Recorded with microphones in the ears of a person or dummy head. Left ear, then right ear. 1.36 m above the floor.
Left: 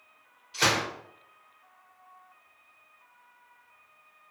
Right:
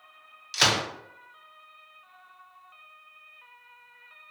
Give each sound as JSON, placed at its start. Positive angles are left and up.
{"t": 0.5, "sound": "a gunshot", "side_deg": -60, "distance_m": 0.8}